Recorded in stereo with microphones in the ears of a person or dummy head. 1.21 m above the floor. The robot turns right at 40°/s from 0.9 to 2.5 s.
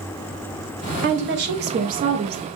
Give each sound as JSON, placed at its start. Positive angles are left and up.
{"t": 1.0, "sound": "a woman speaking", "azimuth_deg": -95, "distance_m": 0.6}